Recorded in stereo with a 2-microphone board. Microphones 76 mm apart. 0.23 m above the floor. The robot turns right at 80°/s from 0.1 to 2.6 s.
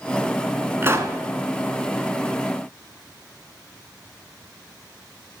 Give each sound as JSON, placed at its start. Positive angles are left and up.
{"t": 0.8, "sound": "a pop", "side_deg": -30, "distance_m": 0.8}